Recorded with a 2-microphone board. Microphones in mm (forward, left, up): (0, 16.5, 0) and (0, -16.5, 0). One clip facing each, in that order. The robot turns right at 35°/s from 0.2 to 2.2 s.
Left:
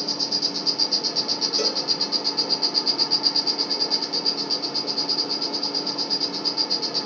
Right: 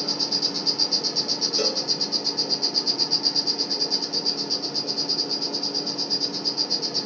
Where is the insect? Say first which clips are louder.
Even; 5° right, 0.8 m; by 7.1 s 65° left, 0.8 m.